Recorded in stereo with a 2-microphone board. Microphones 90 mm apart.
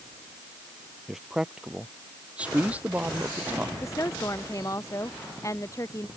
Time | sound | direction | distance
1.1 | a man speaking | 5° right (ahead or behind) | ?
3.8 | a woman speaking | 35° left (ahead or behind) | ?